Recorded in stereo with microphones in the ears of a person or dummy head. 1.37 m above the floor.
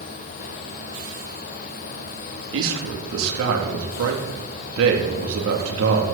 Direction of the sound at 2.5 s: 75° right (ahead or behind).